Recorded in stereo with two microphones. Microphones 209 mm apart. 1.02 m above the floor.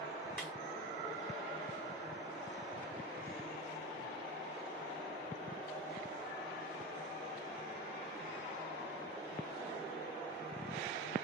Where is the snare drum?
5° left (ahead or behind), 1.0 m.